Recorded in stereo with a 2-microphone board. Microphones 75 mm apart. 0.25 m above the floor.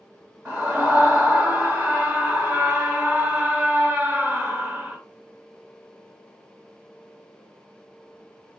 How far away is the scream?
About 1.6 m.